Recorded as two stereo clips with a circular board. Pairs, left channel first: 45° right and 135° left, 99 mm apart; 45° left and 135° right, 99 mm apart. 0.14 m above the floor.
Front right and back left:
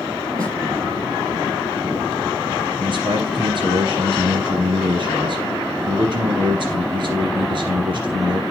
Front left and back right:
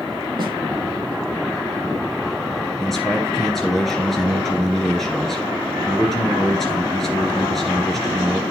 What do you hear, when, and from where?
0.4 s a snare drum: 175° right, 3.5 m
2.8 s a man speaking: 130° left, 2 m